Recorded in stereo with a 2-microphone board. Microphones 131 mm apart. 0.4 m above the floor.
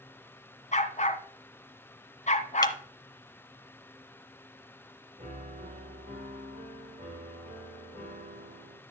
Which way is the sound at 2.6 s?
25° left (ahead or behind).